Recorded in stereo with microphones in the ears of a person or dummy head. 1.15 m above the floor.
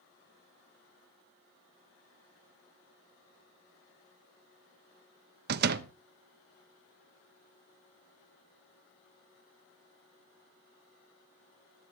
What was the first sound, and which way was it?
A door slam, 60° right (ahead or behind).